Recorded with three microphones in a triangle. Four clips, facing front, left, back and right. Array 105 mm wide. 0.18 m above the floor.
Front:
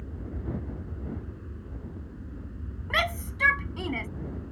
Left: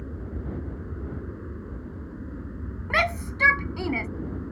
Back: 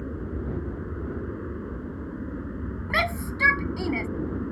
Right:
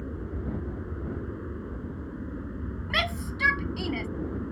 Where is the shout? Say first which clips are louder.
Left 6 dB, back 2 dB; 110° left.